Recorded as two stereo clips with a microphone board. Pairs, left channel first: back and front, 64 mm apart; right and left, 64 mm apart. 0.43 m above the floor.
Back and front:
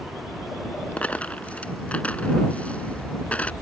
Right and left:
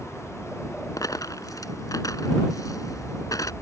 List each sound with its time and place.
1.0 s a dropped coin: 110° right